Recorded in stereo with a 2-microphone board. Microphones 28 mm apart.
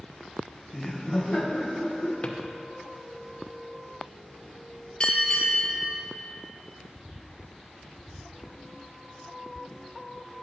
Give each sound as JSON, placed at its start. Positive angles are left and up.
{"t": 0.7, "sound": "laughter", "side_deg": 0, "distance_m": 0.6}
{"t": 2.2, "sound": "a drawer", "side_deg": 40, "distance_m": 0.7}
{"t": 5.0, "sound": "a bell", "side_deg": 30, "distance_m": 2.0}